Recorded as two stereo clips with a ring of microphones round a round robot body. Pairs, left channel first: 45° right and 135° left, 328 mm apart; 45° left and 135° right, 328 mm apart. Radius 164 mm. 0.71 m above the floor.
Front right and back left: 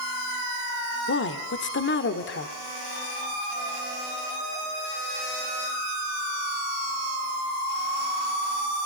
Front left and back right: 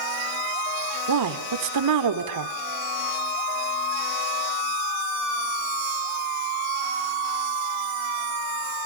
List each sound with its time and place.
1.1 s a woman speaking: 100° right, 2 m